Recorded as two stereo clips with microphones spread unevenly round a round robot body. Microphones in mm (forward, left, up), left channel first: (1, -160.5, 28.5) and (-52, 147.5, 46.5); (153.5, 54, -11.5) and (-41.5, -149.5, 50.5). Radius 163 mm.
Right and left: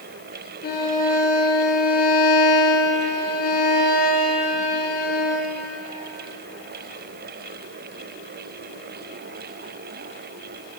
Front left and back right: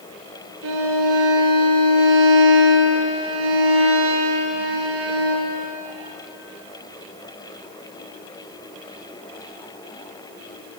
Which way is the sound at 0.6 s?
140° right.